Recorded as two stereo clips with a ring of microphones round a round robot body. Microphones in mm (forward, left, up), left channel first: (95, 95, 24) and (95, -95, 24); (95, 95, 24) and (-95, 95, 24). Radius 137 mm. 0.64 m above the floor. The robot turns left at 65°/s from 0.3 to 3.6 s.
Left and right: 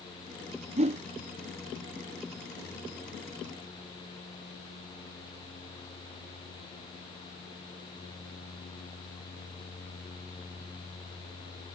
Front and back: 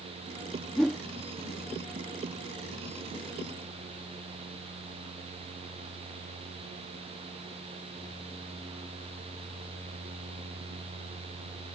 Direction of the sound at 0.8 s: 85° right.